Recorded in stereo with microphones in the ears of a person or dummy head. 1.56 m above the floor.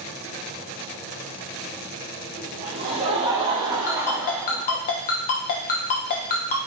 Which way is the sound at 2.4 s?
35° right (ahead or behind).